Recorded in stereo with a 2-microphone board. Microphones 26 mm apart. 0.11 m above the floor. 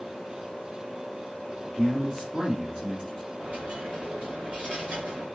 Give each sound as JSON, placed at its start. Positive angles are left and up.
{"t": 1.8, "sound": "a man speaking", "side_deg": -35, "distance_m": 2.0}
{"t": 3.4, "sound": "a dropped coin", "side_deg": -80, "distance_m": 2.0}